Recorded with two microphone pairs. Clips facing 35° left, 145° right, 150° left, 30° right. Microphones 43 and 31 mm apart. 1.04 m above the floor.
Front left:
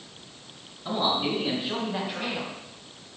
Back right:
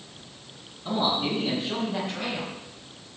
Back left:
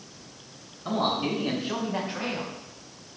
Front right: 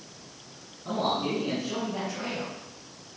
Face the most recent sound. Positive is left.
turn(degrees=110)